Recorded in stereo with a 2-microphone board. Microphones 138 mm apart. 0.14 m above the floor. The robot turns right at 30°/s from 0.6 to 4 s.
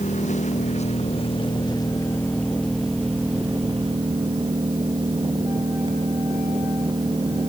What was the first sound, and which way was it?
An engine running, 115° left.